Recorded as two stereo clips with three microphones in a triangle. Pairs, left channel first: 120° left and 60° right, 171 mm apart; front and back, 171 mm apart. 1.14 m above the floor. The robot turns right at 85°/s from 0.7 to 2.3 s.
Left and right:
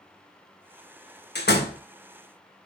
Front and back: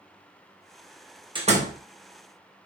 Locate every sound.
1.4 s a door slam: 115° left, 0.8 m; by 1.8 s 155° left, 0.8 m